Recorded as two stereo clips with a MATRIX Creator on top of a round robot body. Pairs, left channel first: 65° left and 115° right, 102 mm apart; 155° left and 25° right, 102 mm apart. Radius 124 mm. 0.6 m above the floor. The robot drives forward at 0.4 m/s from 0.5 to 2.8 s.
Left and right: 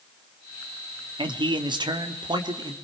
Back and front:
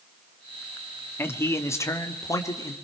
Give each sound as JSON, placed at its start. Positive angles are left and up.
{"t": 1.2, "sound": "a man speaking", "azimuth_deg": -140, "distance_m": 1.8}